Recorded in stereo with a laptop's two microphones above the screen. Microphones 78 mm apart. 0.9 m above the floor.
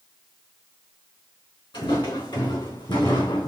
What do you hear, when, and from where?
1.7 s footsteps: 75° left (ahead or behind), 3.5 m; by 3.5 s 65° left (ahead or behind), 2.5 m